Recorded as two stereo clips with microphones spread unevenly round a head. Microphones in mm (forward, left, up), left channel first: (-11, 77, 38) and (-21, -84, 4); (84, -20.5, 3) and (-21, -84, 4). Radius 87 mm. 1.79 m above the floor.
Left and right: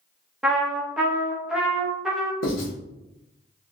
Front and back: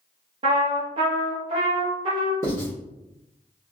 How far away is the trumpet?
About 0.7 m.